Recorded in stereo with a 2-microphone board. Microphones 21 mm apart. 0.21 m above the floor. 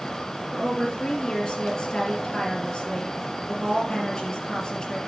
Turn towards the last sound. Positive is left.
turn(degrees=40)  # may be behind; listen again after turning